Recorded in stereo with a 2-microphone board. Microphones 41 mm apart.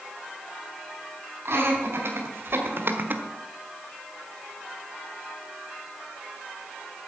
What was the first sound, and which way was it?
Laughter, 80° right.